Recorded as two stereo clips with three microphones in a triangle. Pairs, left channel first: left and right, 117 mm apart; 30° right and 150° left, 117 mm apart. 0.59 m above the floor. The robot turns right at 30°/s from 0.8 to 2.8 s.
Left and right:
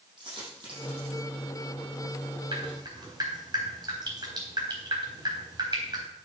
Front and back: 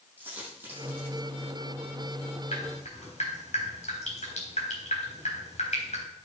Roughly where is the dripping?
Ahead right.